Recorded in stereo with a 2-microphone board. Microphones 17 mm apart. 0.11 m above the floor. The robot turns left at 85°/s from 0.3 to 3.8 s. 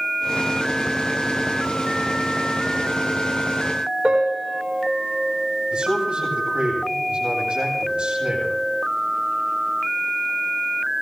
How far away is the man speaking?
About 8 m.